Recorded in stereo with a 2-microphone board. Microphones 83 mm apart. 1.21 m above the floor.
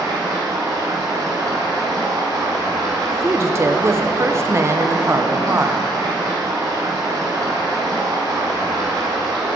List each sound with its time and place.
0.0 s running water: 50° right (ahead or behind), 2 m
3.1 s a woman speaking: 30° right (ahead or behind), 0.5 m